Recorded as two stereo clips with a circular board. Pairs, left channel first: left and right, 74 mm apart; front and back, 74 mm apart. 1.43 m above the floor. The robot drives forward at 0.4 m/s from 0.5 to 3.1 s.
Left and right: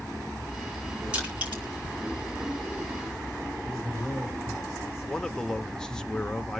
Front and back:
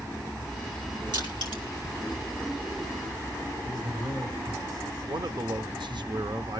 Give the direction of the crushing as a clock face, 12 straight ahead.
5 o'clock.